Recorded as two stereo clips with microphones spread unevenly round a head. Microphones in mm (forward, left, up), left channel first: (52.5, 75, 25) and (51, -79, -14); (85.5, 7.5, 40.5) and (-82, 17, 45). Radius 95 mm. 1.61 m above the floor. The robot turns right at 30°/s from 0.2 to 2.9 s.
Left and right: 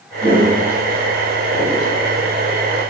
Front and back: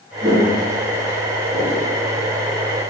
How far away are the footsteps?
About 1.9 m.